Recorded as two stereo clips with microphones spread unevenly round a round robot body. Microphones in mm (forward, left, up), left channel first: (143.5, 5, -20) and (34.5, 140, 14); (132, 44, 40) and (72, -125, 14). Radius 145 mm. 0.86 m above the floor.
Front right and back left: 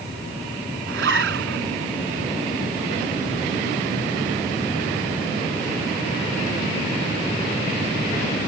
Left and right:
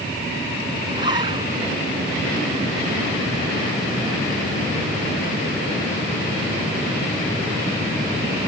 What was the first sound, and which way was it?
A zipper, 175° left.